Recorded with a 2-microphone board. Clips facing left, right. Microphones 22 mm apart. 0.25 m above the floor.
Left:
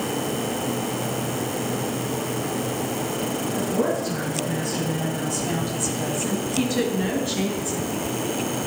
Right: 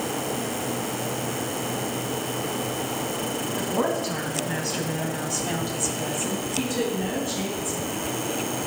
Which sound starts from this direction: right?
A woman speaking, at 3.5 s.